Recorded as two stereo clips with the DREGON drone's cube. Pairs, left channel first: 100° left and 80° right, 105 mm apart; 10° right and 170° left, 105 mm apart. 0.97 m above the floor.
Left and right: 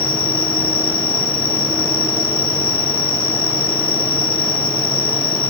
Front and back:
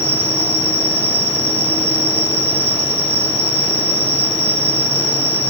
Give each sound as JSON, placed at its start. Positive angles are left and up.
{"t": 0.0, "sound": "an insect", "azimuth_deg": -85, "distance_m": 3.5}